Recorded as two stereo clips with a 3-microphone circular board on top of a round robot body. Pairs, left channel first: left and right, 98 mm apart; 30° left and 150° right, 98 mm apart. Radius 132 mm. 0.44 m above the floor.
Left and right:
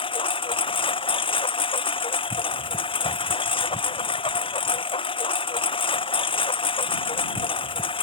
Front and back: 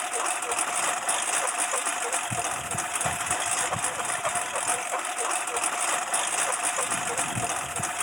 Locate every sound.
0.0 s a lawn mower: 120° left